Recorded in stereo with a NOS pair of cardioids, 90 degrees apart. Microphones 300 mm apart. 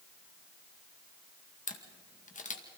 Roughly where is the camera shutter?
Ahead left.